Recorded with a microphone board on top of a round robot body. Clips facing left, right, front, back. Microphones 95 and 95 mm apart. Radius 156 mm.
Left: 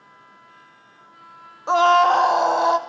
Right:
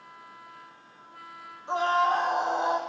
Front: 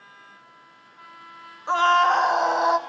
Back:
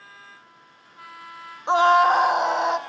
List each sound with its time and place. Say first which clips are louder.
1.7 s a scream: left 9 dB, back 2 dB; 110° left, 0.6 m; by 2.8 s 85° left, 1.3 m